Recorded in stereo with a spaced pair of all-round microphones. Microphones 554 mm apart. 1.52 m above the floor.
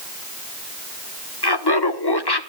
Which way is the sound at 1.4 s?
45° left (ahead or behind).